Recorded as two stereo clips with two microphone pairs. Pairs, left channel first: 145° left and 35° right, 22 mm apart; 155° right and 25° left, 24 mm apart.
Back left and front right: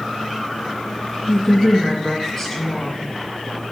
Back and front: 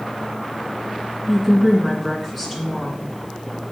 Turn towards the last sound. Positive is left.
turn(degrees=85)